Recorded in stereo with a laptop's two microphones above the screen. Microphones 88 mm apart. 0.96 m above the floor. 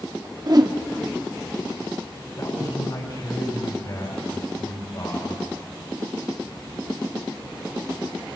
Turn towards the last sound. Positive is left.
turn(degrees=55)  # may be behind; listen again after turning